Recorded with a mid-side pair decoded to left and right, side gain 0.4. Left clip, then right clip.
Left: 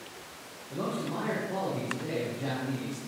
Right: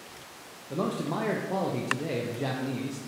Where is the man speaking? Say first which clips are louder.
Right 3 dB; 55° right, 0.5 m.